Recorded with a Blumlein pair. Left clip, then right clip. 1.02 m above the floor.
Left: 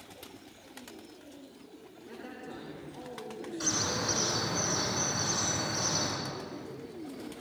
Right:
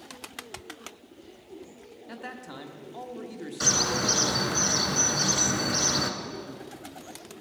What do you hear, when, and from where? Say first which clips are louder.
2.1 s a man speaking: right 4 dB; 60° right, 1.3 m
3.6 s a bird: right 7 dB; 30° right, 1.5 m